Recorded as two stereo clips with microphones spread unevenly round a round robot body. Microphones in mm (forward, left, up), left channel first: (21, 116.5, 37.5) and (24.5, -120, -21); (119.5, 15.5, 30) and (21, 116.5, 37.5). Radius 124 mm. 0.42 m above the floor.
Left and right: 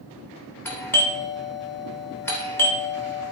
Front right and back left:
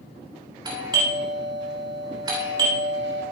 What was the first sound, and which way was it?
A doorbell, 175° right.